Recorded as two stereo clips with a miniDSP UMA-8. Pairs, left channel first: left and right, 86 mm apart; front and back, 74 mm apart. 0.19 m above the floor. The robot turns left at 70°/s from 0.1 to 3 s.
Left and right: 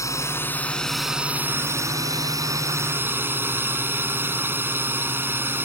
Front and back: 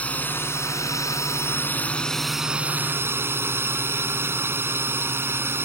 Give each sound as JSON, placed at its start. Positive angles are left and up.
{"t": 0.0, "sound": "a drone", "azimuth_deg": 60}